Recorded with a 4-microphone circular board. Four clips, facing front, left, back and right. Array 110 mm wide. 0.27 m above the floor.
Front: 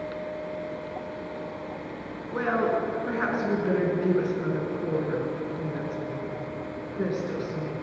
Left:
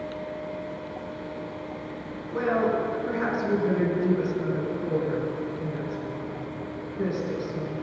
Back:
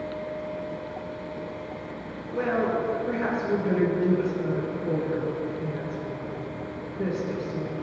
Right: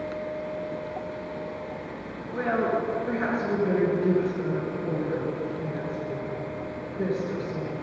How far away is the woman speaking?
About 3.5 m.